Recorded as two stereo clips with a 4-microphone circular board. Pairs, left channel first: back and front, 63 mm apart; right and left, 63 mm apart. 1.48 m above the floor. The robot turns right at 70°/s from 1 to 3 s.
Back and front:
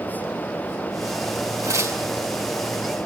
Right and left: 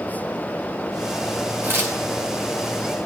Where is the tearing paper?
30° left, 8.5 m; by 2.0 s 55° left, 8.5 m.